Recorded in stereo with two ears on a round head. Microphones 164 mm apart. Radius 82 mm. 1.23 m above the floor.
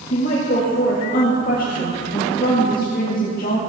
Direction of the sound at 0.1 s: 50° left (ahead or behind).